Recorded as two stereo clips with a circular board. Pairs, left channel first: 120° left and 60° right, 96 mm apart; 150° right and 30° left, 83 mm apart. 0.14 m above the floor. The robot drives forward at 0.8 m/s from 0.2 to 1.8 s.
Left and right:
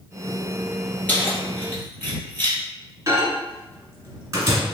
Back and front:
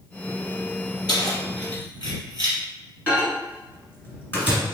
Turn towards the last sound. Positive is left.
turn(degrees=-100)